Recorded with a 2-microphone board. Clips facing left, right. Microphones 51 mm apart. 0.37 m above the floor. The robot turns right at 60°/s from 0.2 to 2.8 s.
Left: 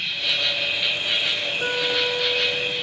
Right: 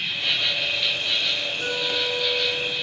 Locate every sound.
0.0 s an insect: 25° right, 1.2 m; by 2.8 s 130° left, 1.2 m
1.6 s a guitar: 90° left, 1.7 m; by 2.7 s 155° left, 1.7 m